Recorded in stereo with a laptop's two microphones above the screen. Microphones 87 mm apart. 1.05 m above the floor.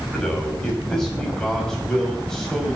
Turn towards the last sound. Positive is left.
turn(degrees=10)  # may be behind; listen again after turning